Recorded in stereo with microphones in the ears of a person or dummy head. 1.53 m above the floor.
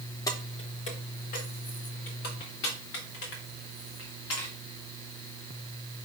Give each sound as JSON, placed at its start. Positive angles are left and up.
{"t": 0.3, "sound": "keys jangling", "side_deg": 20, "distance_m": 1.0}